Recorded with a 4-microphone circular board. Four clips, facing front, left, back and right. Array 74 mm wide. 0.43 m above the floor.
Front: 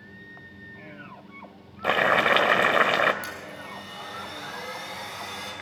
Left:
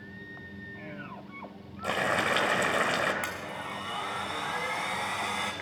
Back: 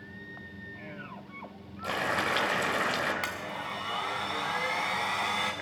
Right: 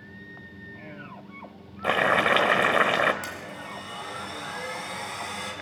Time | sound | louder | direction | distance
1.8 | boiling | right 6 dB, front 9 dB | 35° right | 1.0 m
3.2 | a blender | left 1 dB, back 2 dB | 150° left | 2 m